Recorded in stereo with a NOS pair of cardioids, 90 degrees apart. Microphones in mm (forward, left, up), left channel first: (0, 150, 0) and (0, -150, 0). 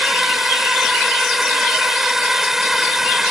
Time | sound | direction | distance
0.0 | a drone | straight ahead | ?